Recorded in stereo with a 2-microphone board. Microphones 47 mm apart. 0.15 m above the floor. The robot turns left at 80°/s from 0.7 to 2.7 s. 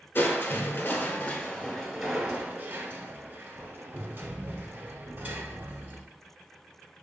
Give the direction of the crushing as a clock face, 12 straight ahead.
8 o'clock.